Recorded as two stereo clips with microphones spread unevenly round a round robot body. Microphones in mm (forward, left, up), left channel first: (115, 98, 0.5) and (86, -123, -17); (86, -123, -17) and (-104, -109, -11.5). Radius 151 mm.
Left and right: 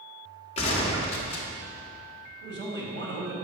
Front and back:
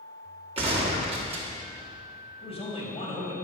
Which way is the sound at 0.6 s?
135° left.